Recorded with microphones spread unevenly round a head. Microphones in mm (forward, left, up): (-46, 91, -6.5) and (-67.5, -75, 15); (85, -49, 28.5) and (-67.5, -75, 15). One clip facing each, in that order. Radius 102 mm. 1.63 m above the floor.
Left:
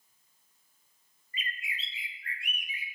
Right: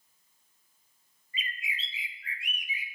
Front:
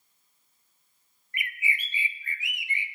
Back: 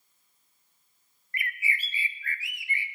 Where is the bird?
60° right, 0.6 m.